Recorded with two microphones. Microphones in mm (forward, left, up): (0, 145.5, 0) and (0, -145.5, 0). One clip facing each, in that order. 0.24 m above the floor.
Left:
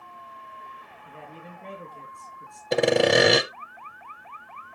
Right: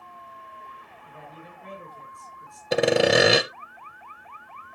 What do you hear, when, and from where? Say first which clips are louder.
1.1 s a man speaking: left 2 dB; 35° left (ahead or behind), 4.5 m
2.7 s sawing: even; centre (ahead or behind), 0.6 m